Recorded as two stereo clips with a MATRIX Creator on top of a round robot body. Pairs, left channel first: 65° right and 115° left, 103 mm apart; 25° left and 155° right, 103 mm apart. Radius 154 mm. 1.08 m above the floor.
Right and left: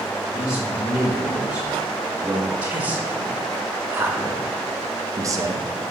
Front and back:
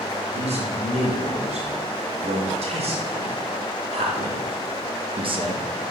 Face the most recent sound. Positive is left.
turn(degrees=165)